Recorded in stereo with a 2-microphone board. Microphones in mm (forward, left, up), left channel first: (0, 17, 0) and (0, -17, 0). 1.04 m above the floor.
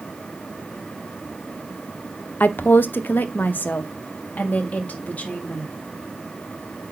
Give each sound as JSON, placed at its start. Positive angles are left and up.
{"t": 2.4, "sound": "a woman speaking", "side_deg": 60, "distance_m": 0.6}